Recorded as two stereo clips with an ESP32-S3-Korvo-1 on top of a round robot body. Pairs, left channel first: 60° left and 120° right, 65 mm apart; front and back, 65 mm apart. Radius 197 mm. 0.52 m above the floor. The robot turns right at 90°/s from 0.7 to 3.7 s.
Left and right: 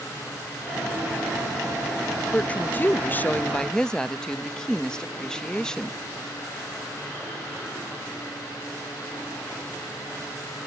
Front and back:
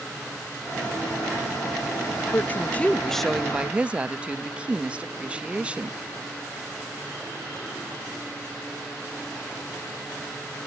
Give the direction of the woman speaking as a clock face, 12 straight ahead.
12 o'clock.